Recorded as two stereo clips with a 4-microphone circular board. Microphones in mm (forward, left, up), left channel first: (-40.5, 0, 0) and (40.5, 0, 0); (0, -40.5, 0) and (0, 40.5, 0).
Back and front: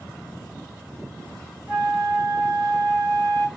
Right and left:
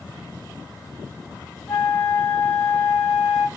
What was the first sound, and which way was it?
A flute, 60° right.